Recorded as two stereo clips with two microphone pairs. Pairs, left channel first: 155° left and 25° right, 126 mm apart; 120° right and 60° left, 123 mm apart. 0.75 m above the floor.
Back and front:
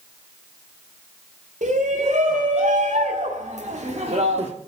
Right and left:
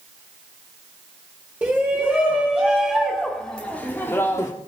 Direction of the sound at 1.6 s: 15° right.